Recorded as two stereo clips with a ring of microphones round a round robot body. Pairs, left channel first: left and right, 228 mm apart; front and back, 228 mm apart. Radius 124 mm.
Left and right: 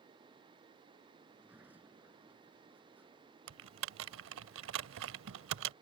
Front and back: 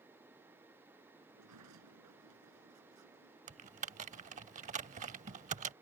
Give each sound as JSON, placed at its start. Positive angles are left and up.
{"t": 1.3, "sound": "a sliding door", "azimuth_deg": -175}
{"t": 3.5, "sound": "typing on a keyboard", "azimuth_deg": -120}